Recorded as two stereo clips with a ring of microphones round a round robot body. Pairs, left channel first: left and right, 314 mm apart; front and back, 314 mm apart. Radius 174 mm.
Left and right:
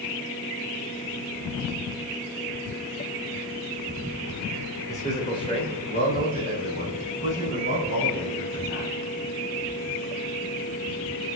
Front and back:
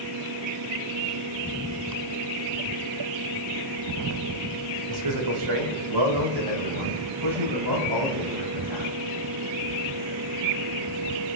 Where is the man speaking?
170° left, 3.5 m; by 8.9 s 140° left, 6.5 m.